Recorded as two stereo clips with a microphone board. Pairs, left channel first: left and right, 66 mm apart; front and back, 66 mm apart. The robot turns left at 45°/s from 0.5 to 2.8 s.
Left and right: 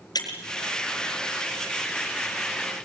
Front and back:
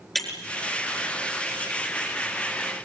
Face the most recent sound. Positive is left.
turn(degrees=-15)